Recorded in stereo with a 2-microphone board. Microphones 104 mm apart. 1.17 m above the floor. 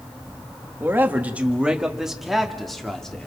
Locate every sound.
0.8 s a man speaking: 20° right (ahead or behind), 1.6 m; by 3.3 s 5° left (ahead or behind), 2.5 m